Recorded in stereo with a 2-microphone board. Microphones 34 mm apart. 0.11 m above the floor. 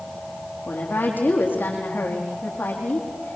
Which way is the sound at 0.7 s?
75° left (ahead or behind).